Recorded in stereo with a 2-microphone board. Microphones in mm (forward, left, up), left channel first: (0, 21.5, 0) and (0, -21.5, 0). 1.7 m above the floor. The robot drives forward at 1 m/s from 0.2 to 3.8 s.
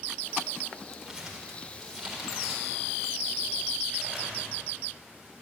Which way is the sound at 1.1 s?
15° right (ahead or behind).